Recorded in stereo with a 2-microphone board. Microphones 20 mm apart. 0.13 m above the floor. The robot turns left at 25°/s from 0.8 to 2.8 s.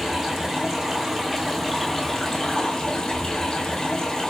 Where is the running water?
160° right, 1.2 m; by 4.3 s 150° left, 1.2 m.